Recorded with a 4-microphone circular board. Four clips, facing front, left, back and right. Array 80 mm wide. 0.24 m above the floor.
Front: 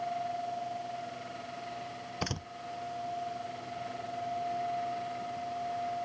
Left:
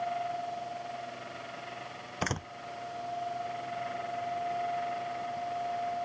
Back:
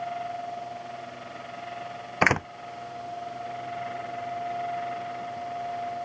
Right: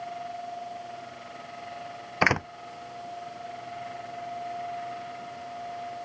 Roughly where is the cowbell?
I don't hear a cowbell.